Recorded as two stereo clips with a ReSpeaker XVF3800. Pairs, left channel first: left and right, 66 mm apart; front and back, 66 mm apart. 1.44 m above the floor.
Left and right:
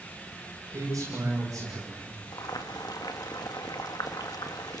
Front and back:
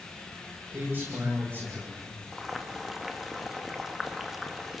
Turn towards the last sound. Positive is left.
turn(degrees=95)